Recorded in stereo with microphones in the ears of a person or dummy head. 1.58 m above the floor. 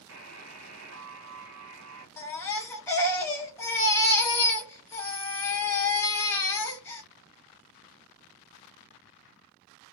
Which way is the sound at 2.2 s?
5° left (ahead or behind).